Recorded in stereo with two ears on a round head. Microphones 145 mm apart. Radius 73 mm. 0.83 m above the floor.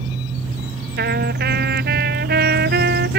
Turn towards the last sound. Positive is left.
turn(degrees=-55)  # may be behind; listen again after turning